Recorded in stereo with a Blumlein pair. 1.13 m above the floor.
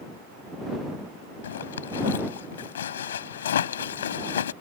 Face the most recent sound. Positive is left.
turn(degrees=65)